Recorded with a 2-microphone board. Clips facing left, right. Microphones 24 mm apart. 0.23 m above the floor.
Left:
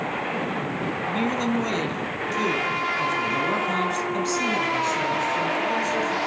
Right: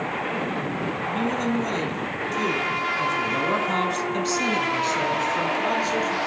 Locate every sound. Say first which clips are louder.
1.1 s a man speaking: left 1 dB; 30° left (ahead or behind), 2.5 m; by 6.2 s 35° right (ahead or behind), 3 m